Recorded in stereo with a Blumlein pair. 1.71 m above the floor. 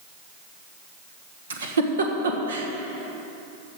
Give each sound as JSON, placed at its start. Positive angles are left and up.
{"t": 1.5, "sound": "a giggle", "azimuth_deg": -70, "distance_m": 1.4}